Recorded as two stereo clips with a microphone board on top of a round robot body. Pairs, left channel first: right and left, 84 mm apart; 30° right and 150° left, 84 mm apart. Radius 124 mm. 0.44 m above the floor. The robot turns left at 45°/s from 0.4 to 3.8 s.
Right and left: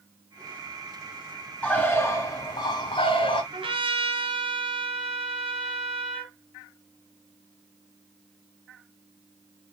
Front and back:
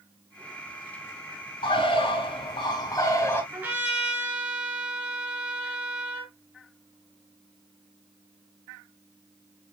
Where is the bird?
15° right, 3.5 m; by 3.4 s 95° right, 3.5 m.